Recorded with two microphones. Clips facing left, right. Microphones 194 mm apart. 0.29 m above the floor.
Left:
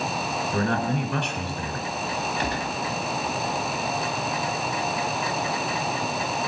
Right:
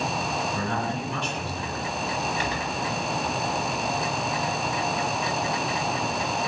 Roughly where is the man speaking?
Left.